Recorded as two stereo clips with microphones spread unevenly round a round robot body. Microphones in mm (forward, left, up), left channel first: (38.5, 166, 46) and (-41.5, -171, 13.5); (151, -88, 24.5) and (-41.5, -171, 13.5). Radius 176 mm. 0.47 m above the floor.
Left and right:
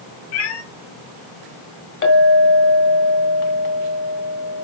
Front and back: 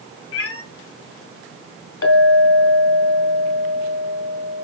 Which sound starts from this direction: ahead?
A clink, at 2.0 s.